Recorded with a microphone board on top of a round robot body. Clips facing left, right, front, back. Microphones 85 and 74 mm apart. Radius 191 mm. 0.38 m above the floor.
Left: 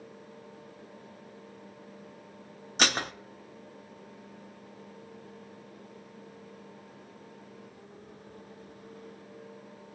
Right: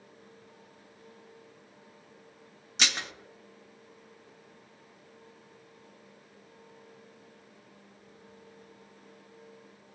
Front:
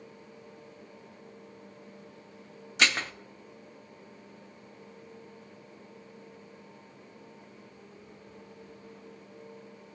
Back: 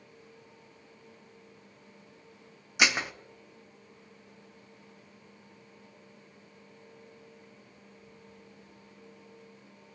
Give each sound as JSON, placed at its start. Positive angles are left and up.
{"t": 2.8, "sound": "dishes clattering", "azimuth_deg": 110, "distance_m": 0.7}